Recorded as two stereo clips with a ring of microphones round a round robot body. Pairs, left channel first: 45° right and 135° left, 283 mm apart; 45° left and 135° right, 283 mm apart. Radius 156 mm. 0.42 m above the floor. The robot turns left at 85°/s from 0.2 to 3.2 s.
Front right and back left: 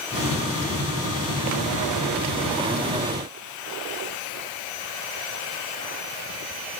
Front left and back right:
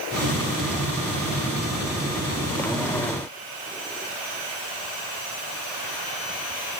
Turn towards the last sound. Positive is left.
No sound to turn to.